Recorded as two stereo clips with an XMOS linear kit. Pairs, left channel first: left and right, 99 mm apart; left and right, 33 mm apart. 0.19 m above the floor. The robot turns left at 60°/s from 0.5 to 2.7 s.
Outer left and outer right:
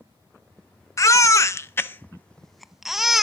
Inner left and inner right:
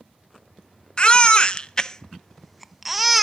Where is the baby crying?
30° left (ahead or behind), 0.5 m; by 3.2 s 5° right (ahead or behind), 0.5 m.